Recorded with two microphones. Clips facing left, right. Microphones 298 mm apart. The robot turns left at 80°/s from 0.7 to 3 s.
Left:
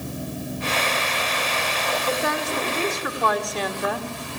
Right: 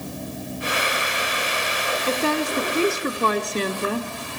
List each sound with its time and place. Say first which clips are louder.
2.1 s a woman speaking: right 5 dB; 50° right, 1.6 m; by 4.1 s 125° right, 1.6 m